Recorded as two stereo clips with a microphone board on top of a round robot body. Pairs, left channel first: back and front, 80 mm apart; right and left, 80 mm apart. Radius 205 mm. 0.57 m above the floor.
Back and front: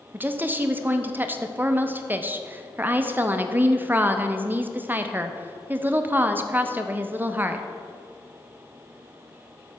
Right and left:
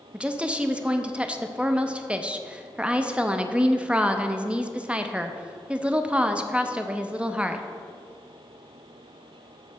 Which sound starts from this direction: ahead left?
A woman speaking, at 0.1 s.